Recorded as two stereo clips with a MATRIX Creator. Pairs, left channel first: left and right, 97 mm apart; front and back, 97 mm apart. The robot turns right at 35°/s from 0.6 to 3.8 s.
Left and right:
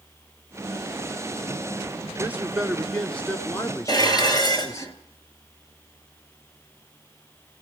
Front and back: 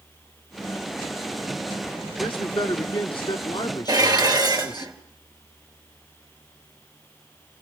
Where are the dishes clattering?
135° left, 2.5 m.